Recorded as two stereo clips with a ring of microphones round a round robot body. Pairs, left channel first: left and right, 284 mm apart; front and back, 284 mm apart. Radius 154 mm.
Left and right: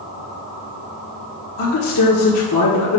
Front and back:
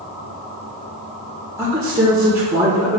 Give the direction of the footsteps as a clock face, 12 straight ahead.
No footsteps in this recording.